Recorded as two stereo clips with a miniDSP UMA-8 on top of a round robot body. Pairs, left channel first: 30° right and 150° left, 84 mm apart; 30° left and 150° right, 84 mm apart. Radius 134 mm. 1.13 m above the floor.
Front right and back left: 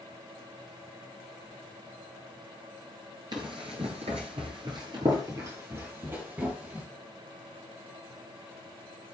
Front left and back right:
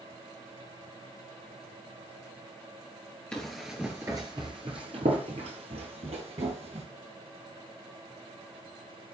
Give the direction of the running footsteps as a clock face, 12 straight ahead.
8 o'clock.